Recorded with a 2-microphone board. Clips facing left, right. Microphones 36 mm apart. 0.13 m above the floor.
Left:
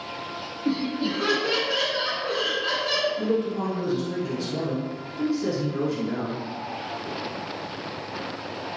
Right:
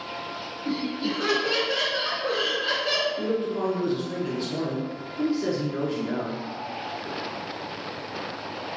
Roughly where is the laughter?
Left.